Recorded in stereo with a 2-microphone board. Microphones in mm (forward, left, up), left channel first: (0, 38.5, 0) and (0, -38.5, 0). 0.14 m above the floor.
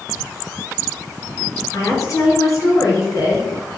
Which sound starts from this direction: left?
A woman speaking, at 1.7 s.